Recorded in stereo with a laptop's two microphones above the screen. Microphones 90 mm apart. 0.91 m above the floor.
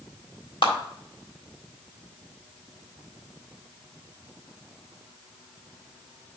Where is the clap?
70° left (ahead or behind), 1.6 m.